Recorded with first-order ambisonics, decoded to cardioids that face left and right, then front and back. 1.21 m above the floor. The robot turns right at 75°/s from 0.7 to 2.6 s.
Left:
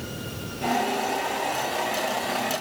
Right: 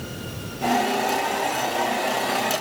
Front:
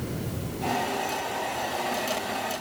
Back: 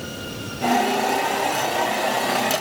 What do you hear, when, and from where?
Only background noise.